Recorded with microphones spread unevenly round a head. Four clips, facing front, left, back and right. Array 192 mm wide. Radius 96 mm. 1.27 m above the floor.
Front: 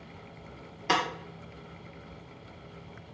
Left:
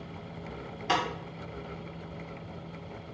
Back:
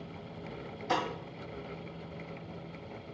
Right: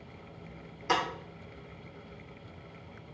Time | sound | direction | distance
0.9 | breaking glass | straight ahead | 1.5 m